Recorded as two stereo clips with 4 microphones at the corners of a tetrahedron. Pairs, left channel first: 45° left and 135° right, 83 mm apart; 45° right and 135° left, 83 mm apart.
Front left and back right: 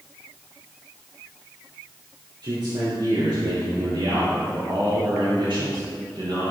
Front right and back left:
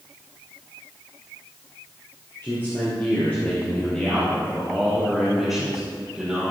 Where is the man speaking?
110° right, 4 m; by 6.5 s 145° right, 4.5 m.